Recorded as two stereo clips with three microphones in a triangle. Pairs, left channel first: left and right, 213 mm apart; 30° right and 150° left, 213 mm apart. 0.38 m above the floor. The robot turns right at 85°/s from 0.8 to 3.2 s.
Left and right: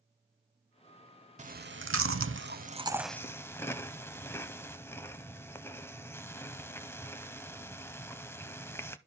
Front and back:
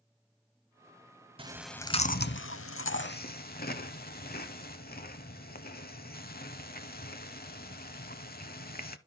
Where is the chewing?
145° right, 0.6 m; by 9.0 s 10° left, 0.6 m.